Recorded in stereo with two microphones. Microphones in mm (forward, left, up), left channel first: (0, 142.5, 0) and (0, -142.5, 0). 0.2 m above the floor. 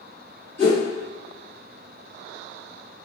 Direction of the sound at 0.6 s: 35° left (ahead or behind).